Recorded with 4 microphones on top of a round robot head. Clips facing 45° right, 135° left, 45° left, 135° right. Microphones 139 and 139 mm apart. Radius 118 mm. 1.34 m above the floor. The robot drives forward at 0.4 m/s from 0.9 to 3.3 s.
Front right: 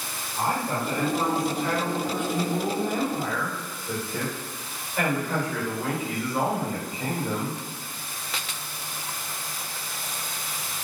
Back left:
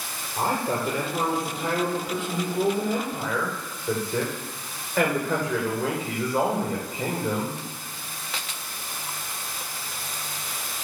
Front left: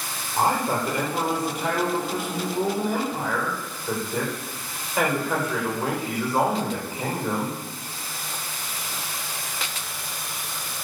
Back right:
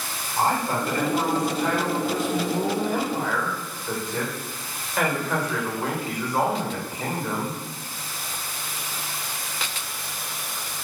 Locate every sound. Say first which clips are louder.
0.4 s a man speaking: back left 1 dB, front left 1 dB; 125° left, 6.5 m; by 7.6 s 130° left, 7 m